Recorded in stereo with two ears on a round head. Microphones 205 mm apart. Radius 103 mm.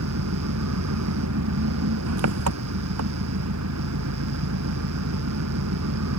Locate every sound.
0.0 s an engine running: 75° right (ahead or behind)